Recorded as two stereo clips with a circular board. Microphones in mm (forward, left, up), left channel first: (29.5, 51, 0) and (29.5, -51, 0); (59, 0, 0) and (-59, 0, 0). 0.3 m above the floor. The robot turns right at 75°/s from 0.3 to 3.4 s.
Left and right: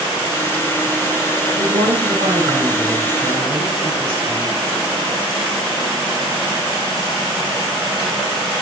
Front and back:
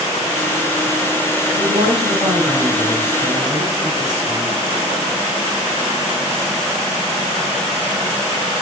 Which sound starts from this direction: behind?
A woman speaking, at 1.6 s.